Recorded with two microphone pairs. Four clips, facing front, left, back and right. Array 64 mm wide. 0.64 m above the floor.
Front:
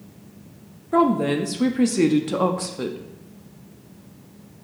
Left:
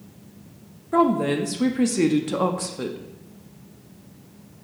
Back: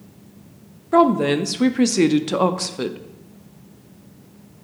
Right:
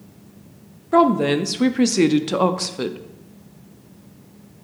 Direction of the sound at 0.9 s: 140° right.